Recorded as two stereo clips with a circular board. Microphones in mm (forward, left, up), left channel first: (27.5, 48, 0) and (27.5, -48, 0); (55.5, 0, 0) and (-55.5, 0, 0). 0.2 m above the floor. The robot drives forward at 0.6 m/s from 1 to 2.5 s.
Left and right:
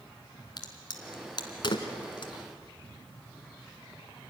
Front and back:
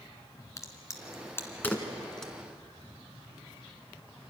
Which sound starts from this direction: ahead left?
A crack, at 0.6 s.